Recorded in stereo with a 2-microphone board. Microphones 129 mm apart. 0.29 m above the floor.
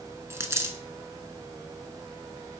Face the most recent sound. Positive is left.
turn(degrees=-20)  # may be behind; listen again after turning